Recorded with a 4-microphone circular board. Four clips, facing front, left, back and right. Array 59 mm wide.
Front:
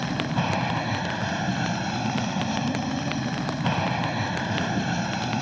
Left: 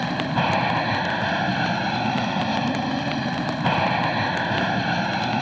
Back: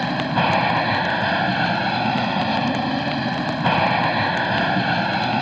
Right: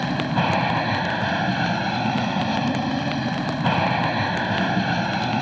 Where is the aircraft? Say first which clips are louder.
Even, back 7 dB; 175° left.